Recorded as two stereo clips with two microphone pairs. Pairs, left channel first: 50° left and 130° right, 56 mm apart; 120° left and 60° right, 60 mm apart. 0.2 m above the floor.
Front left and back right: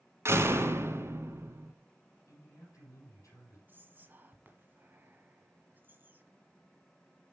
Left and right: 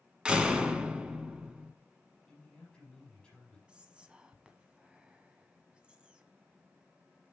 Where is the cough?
No cough in this recording.